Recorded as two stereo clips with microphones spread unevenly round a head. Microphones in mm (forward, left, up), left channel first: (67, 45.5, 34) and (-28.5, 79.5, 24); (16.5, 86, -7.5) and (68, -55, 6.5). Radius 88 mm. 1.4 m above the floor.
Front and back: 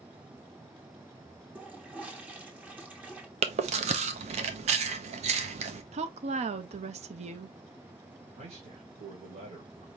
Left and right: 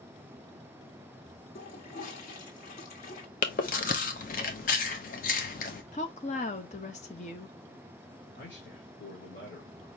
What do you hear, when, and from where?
1.6 s a toilet flushing: 85° left, 1.4 m
3.4 s chewing: 155° left, 0.7 m
5.9 s a woman speaking: 165° left, 0.6 m
8.4 s a man speaking: 160° left, 1.5 m